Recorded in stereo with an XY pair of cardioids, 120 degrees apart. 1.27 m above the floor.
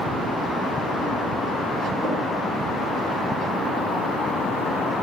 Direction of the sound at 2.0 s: 45° right.